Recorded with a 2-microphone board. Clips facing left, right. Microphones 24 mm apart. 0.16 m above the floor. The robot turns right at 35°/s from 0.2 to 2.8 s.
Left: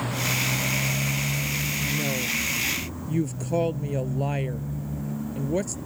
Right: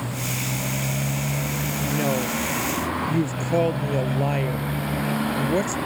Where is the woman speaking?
50° right; by 5.8 s 15° right.